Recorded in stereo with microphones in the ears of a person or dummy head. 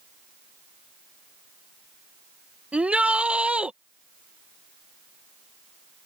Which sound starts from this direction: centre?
A shout, at 2.7 s.